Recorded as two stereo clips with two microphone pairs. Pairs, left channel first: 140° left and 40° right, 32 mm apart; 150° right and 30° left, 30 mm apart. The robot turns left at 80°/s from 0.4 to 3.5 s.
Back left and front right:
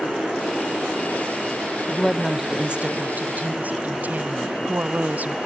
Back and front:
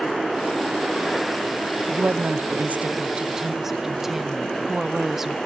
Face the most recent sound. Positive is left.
turn(degrees=-50)